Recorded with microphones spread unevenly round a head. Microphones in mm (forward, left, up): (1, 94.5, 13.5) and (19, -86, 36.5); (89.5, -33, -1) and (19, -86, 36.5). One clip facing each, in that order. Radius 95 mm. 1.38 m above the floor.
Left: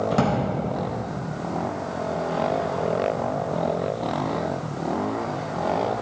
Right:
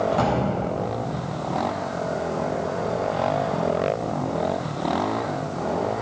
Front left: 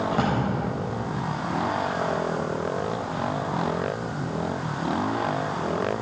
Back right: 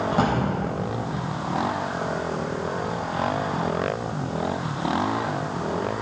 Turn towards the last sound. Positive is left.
turn(degrees=135)